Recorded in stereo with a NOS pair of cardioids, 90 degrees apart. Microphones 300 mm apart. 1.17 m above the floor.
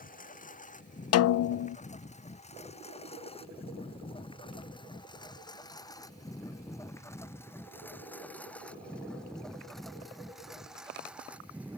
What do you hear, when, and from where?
0.0 s a lawn mower: 25° left; by 11.8 s 5° right
1.1 s a snare drum: 55° left